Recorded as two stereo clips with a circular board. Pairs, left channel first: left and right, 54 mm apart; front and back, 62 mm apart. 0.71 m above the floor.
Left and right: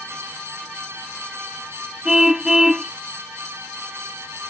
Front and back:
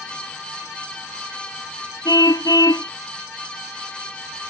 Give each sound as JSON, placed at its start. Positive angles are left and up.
{"t": 2.0, "sound": "a car horn", "azimuth_deg": -10}